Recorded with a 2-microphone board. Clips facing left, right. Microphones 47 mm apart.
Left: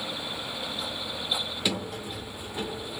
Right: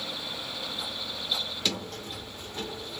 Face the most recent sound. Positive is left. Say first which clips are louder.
# left 3 dB
turn(degrees=10)  # may be behind; listen again after turning